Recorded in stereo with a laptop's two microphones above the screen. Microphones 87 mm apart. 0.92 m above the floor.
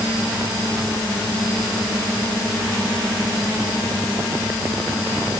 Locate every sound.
Only background noise.